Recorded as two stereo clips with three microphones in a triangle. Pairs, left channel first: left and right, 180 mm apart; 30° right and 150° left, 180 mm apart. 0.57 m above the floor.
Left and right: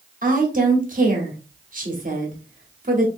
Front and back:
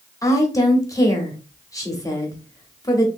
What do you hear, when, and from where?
0.2 s a woman speaking: 95° right, 1.0 m